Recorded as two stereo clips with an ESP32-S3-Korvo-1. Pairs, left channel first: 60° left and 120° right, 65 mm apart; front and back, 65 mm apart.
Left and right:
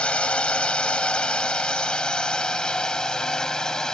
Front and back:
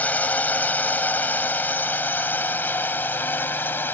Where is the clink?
I don't hear a clink.